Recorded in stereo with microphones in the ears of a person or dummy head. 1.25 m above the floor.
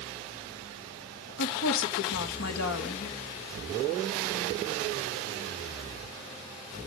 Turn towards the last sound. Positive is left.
turn(degrees=75)  # may be behind; listen again after turning